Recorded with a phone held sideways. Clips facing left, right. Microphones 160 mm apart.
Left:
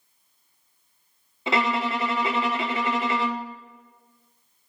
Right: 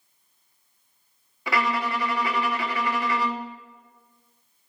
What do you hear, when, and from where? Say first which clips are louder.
1.5 s a violin: left 2 dB; 25° left (ahead or behind), 0.7 m